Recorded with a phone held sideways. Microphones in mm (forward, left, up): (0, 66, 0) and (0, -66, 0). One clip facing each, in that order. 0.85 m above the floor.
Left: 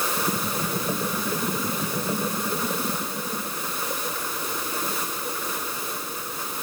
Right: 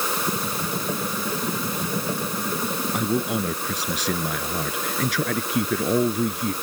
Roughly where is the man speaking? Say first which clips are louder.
Right 8 dB; right.